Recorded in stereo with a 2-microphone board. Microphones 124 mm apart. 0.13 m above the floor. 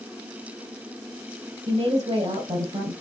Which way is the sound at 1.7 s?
60° right (ahead or behind).